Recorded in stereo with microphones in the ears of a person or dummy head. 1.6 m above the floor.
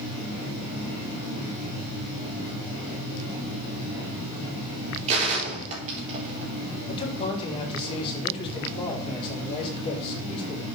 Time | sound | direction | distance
5.1 | a gunshot | 35° right (ahead or behind) | 4 m
6.9 | a man speaking | 30° left (ahead or behind) | 3.5 m